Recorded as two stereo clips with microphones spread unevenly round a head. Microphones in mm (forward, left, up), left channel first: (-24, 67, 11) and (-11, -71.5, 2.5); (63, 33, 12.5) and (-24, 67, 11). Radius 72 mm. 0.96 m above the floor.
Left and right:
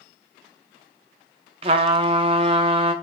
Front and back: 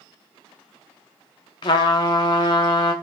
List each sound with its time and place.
1.6 s a trumpet: 45° right, 0.5 m